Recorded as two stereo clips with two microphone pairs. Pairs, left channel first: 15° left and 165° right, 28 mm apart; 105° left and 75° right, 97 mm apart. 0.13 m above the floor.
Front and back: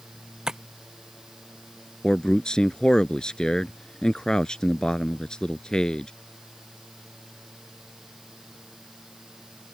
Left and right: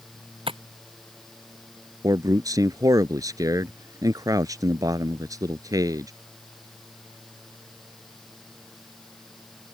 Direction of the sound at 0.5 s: 100° right.